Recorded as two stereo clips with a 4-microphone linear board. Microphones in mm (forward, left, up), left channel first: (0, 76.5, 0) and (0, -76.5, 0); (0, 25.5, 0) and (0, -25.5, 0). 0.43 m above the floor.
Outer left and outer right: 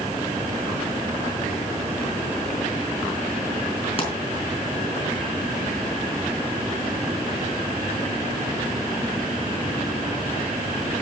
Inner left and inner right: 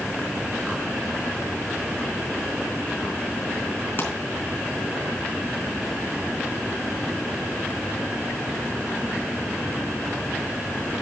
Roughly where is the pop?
Left.